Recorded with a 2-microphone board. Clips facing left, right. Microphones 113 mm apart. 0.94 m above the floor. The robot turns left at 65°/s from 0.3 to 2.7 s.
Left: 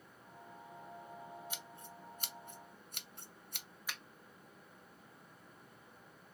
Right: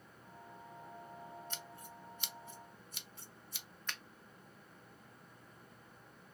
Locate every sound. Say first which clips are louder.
1.5 s scissors: even; 10° left (ahead or behind), 0.7 m; by 3.7 s 65° left (ahead or behind), 0.7 m
3.9 s a finger snap: even; 10° left (ahead or behind), 0.7 m